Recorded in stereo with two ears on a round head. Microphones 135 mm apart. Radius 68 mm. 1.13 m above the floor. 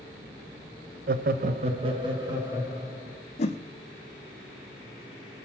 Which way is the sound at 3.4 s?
45° left (ahead or behind).